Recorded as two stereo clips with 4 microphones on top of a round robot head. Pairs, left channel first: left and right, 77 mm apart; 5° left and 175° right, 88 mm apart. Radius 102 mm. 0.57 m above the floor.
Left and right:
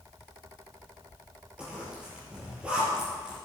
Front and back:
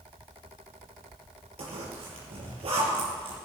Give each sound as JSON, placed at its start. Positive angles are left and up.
{"t": 1.6, "sound": "a zipper", "azimuth_deg": -170, "distance_m": 5.0}